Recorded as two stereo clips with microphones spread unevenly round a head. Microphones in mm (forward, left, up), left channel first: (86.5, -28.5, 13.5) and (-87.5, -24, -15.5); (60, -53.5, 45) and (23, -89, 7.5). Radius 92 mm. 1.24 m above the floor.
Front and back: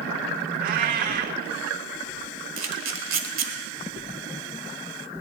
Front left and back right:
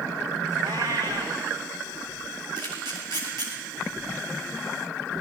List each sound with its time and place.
0.6 s a cat meowing: 140° left, 1.1 m
2.6 s a camera shutter: 165° left, 1.8 m